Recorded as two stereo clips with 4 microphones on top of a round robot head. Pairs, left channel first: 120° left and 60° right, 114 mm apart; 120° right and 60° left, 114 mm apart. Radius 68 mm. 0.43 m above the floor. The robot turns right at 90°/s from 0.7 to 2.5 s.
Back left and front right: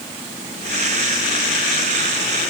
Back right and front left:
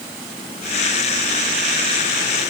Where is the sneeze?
No sneeze in this recording.